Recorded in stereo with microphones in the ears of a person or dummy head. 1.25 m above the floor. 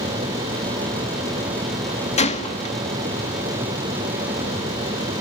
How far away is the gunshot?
About 1.4 m.